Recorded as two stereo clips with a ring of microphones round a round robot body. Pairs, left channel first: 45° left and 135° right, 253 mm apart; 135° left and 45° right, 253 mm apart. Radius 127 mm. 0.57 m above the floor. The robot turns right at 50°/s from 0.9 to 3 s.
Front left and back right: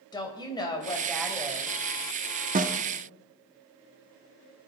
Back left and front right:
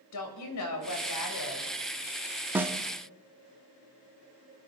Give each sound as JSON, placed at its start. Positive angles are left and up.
{"t": 0.1, "sound": "a woman speaking", "azimuth_deg": 120, "distance_m": 3.0}
{"t": 2.5, "sound": "a snare drum", "azimuth_deg": -120, "distance_m": 0.8}